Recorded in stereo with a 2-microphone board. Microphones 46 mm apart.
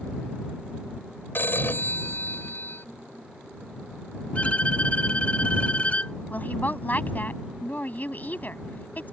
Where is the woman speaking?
40° left (ahead or behind).